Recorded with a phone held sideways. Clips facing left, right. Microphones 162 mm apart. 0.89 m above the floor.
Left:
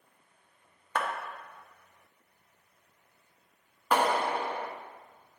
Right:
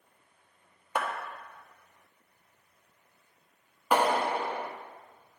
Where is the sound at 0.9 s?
15° right (ahead or behind), 1.0 m.